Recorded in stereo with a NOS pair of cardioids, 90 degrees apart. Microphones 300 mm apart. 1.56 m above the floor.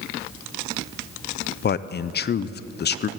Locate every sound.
1.6 s a man speaking: 35° left, 0.6 m